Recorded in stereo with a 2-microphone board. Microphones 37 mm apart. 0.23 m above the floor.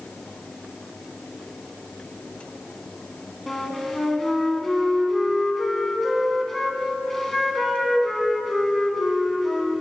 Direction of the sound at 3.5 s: 5° left (ahead or behind).